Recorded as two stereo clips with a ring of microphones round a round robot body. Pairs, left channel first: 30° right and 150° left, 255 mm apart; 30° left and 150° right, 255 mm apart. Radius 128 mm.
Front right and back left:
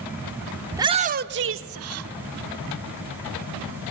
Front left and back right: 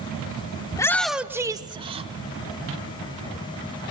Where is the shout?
80° left, 0.8 m; by 2.1 s 145° left, 1.6 m.